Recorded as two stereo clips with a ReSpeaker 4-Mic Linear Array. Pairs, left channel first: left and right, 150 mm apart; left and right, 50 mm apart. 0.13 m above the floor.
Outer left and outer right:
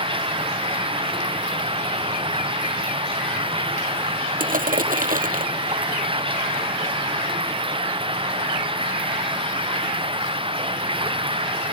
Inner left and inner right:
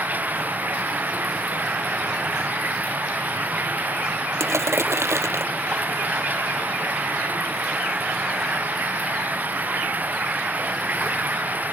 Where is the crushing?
70° right (ahead or behind).